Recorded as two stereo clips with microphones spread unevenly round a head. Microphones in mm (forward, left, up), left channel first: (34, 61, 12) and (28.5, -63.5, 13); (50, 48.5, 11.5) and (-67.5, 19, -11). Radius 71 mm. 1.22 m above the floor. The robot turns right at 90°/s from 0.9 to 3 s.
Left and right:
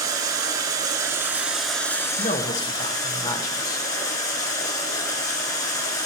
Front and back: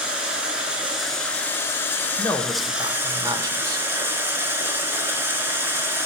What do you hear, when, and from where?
0.0 s running water: 70° right, 1.3 m; by 6.1 s 120° left, 1.3 m
2.2 s a man speaking: 75° left, 0.7 m; by 3.9 s 150° left, 0.7 m